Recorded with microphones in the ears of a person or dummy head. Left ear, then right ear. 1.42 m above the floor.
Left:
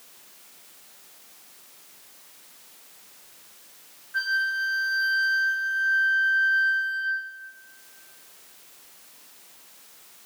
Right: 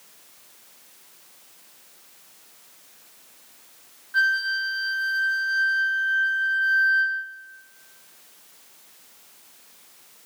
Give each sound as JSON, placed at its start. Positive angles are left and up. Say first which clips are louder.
{"t": 4.1, "sound": "a flute", "louder": "right 3 dB", "side_deg": -50, "distance_m": 2.5}